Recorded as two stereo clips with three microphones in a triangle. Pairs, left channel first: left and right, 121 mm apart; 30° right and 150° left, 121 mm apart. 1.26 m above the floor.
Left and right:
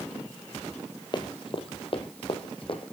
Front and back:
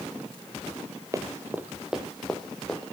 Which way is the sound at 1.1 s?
105° left.